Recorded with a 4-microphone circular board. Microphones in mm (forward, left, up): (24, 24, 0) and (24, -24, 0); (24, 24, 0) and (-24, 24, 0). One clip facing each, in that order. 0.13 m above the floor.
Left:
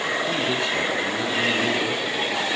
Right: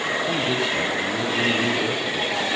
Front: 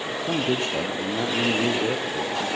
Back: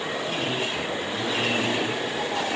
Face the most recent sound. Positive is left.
turn(degrees=-5)